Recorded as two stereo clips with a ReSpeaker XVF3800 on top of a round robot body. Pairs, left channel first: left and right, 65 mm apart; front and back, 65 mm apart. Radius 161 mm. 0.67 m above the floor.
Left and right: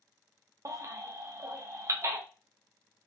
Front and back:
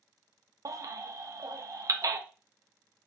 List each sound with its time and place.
0.7 s a baby crying: 140° right, 0.7 m